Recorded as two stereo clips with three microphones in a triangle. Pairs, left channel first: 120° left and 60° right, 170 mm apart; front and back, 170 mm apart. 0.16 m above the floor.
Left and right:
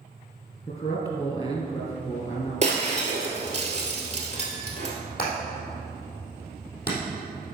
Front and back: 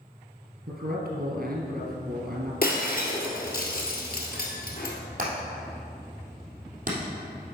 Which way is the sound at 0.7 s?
170° left.